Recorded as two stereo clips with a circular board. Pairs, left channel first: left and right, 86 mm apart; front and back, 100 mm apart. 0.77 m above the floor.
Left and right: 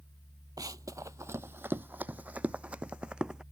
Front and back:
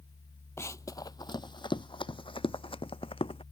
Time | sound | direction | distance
0.6 | running footsteps | 55° right | ?